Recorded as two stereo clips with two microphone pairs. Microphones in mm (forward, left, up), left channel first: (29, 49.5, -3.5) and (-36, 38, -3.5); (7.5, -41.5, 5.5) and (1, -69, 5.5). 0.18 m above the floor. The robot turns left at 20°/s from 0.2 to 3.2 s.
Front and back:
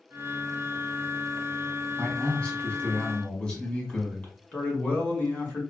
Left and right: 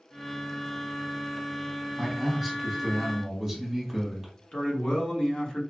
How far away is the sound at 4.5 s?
About 1.4 m.